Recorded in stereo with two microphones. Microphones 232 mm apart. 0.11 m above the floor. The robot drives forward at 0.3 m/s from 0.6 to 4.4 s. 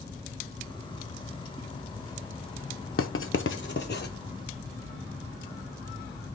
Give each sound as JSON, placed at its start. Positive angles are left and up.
{"t": 3.0, "sound": "writing", "side_deg": 65, "distance_m": 0.5}